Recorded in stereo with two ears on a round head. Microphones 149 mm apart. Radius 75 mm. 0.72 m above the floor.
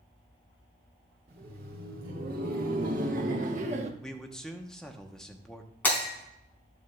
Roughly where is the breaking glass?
Centre.